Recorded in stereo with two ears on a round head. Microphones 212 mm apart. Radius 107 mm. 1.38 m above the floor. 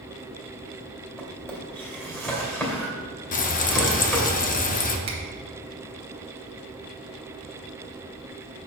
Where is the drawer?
10° left (ahead or behind), 2.5 m.